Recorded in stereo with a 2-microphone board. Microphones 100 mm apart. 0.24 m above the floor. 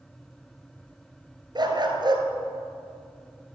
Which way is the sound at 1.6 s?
45° right (ahead or behind).